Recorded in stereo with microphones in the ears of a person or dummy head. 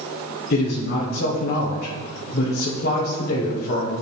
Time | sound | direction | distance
0.5 | a man speaking | 55° left (ahead or behind) | 1.2 m